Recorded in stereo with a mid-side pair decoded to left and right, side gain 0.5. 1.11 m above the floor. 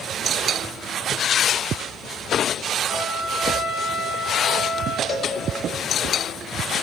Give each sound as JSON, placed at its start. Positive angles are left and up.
{"t": 2.9, "sound": "a trumpet", "azimuth_deg": 65, "distance_m": 0.8}
{"t": 5.1, "sound": "a cowbell", "azimuth_deg": 45, "distance_m": 0.8}